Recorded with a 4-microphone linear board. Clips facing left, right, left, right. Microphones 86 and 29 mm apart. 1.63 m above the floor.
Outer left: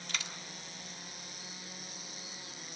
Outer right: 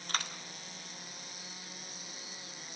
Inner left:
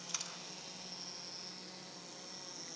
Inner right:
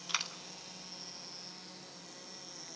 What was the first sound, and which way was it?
A dropped coin, 45° right (ahead or behind).